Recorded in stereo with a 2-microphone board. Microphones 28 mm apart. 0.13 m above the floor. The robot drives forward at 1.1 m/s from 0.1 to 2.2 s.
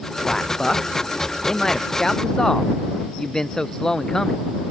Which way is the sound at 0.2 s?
20° left (ahead or behind).